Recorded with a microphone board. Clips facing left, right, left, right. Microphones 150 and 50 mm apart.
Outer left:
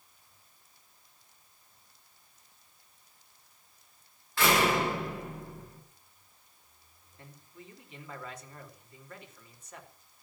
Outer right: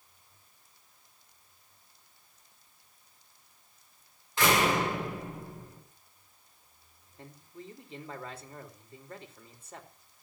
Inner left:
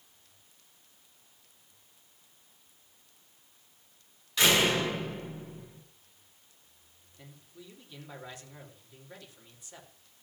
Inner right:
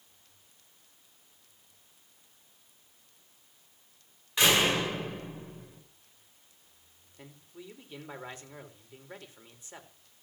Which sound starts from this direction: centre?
A door slam, at 4.4 s.